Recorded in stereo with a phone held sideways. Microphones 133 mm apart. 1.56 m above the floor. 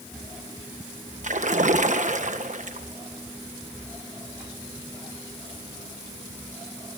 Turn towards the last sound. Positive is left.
turn(degrees=-60)  # may be behind; listen again after turning